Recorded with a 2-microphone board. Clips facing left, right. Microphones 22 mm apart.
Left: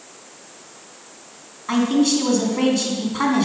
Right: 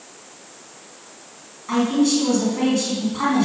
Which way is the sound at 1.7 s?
20° left (ahead or behind).